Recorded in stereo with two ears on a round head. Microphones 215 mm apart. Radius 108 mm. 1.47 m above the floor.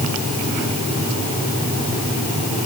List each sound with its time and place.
Only background noise.